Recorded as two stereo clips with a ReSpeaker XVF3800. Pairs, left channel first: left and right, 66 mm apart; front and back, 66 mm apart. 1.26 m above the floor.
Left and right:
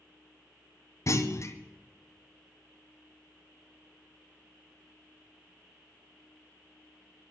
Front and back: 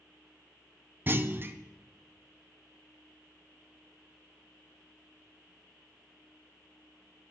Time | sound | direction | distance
1.1 | a clunk | 125° left | 0.6 m